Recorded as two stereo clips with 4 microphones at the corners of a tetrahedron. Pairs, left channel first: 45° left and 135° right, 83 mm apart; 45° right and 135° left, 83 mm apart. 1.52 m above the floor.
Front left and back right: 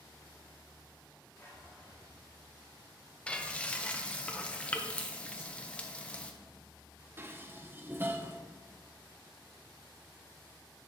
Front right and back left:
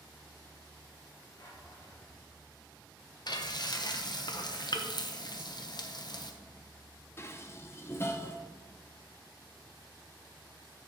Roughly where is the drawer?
Ahead.